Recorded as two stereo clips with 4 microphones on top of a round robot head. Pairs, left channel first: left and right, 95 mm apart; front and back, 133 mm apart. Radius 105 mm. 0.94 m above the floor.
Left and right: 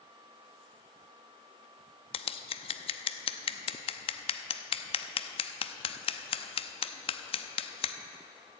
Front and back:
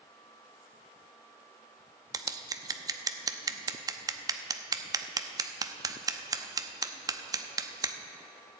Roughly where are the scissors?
Behind left.